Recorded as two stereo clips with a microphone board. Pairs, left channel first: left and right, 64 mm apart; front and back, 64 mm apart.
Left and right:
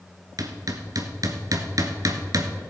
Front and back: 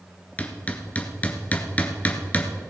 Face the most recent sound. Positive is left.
turn(degrees=-65)